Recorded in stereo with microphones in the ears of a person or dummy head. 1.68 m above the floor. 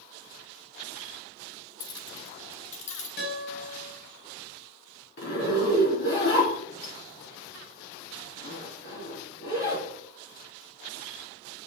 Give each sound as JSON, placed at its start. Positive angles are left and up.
{"t": 1.8, "sound": "keys jangling", "side_deg": 30, "distance_m": 1.0}
{"t": 3.2, "sound": "a guitar", "side_deg": 45, "distance_m": 3.5}
{"t": 5.2, "sound": "a zipper", "side_deg": 70, "distance_m": 4.0}